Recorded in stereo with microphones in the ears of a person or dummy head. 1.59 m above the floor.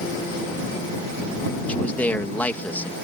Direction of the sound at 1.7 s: 10° left (ahead or behind).